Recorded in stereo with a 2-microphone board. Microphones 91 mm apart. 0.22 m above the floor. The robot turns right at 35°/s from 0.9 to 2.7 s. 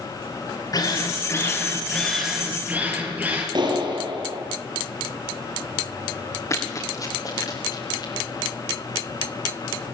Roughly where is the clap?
Right.